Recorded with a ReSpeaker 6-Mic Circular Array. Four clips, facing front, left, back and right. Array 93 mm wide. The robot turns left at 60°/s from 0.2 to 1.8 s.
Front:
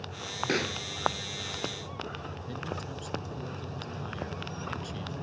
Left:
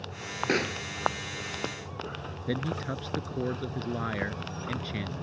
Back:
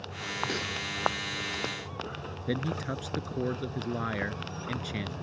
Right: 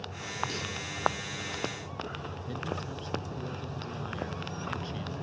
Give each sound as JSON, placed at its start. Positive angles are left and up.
{"t": 0.5, "sound": "a pop", "azimuth_deg": 65}
{"t": 2.5, "sound": "a man speaking", "azimuth_deg": 140}